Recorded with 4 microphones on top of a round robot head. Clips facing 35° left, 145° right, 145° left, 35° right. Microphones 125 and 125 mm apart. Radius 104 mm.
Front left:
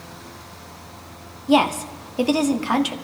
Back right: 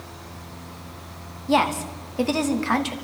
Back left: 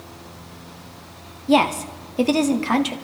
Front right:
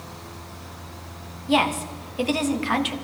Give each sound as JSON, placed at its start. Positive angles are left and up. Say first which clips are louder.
{"t": 1.5, "sound": "a woman speaking", "louder": "front left 3 dB, back left 4 dB", "azimuth_deg": 105, "distance_m": 1.5}